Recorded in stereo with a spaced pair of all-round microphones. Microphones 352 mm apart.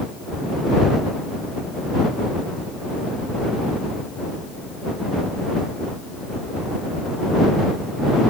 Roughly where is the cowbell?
No cowbell in this recording.